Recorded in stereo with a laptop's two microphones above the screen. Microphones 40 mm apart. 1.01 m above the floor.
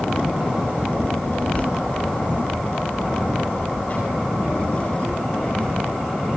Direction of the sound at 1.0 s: 40° left (ahead or behind).